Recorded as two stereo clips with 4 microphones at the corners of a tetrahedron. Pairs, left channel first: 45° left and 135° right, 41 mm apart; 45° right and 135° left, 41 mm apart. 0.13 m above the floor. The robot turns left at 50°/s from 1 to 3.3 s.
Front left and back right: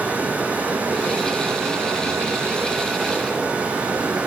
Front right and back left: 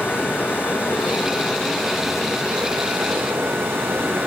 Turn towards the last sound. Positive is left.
turn(degrees=165)